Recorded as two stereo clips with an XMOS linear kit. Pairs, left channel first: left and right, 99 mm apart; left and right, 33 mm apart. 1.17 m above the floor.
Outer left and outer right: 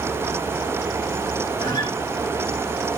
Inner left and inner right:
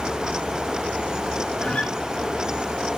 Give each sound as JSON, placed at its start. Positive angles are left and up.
{"t": 1.6, "sound": "a guitar", "side_deg": 45, "distance_m": 5.5}